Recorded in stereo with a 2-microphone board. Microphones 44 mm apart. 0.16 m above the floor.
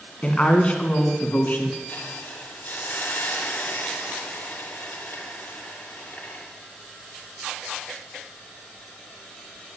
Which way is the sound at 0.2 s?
25° left (ahead or behind).